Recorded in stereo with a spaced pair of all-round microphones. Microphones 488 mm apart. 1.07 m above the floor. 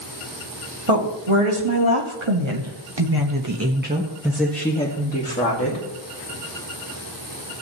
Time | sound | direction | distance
0.9 | a woman speaking | 80° right | 2.5 m